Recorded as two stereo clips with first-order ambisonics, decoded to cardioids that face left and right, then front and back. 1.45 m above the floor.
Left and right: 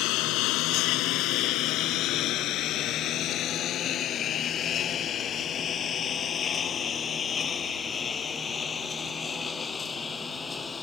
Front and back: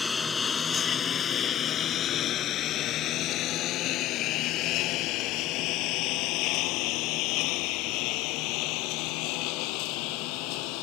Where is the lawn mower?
75° left; by 10.8 s 15° left.